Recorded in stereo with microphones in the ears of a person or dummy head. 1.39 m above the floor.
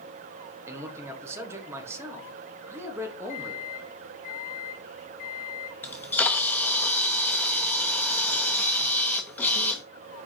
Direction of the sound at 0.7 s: 15° right (ahead or behind).